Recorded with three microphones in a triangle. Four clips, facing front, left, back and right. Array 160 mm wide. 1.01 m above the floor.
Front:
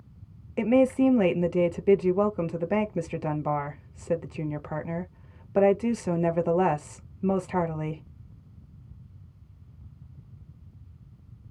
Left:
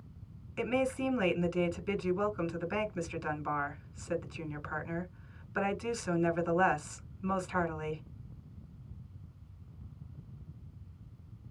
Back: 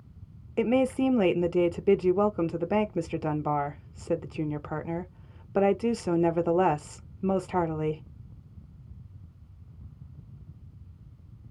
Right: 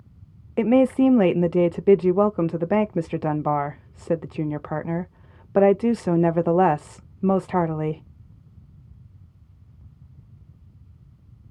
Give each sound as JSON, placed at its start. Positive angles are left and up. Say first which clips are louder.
{"t": 0.6, "sound": "a woman speaking", "louder": "right 14 dB, front 3 dB", "azimuth_deg": -95, "distance_m": 0.9}